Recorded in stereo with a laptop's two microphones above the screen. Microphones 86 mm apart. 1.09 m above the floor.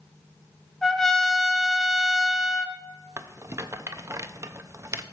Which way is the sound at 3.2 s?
35° right (ahead or behind).